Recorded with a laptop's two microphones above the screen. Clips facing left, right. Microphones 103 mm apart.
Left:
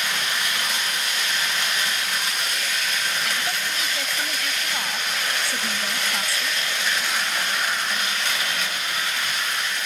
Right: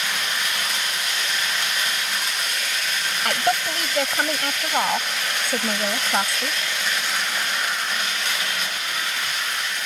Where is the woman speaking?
55° right (ahead or behind).